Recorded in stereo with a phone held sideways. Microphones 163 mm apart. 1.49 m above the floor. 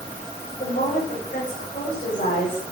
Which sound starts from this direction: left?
A woman speaking, at 0.6 s.